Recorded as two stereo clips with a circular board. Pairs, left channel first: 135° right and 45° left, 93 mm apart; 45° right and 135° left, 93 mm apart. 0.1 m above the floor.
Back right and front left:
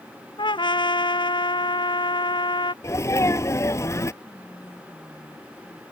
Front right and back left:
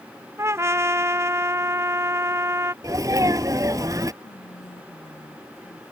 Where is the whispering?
35° right.